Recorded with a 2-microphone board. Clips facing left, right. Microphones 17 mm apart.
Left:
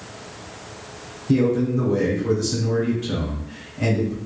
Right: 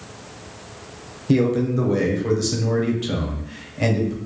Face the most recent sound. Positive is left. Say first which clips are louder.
# even
turn(degrees=-20)  # may be behind; listen again after turning